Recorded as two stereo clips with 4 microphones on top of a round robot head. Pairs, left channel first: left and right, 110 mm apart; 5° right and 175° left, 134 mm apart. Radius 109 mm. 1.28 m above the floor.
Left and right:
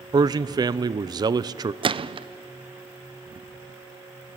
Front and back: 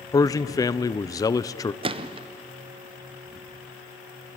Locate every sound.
0.1 s a man speaking: 55° right, 0.6 m
1.8 s a gunshot: 130° right, 0.6 m